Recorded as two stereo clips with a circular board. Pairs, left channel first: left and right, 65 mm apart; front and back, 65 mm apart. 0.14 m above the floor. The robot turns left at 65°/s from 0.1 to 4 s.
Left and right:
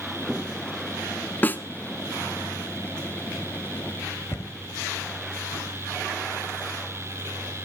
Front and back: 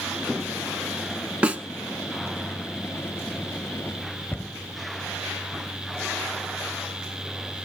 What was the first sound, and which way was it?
A snare drum, 125° left.